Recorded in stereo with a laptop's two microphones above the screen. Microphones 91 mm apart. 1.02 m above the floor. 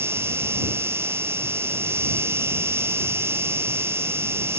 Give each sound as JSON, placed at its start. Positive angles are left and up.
{"t": 0.0, "sound": "an insect", "side_deg": -30}